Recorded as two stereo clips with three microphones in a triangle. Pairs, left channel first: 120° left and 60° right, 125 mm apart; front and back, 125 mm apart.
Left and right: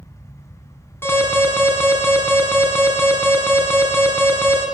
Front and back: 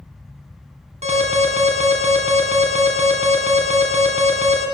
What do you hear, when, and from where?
1.0 s an alarm: 170° right, 3 m